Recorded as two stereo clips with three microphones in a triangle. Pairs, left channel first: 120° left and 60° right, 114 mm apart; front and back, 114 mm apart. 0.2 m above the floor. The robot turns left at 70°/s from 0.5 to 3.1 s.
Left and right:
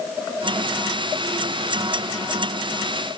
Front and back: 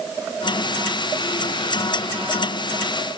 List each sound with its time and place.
Only background noise.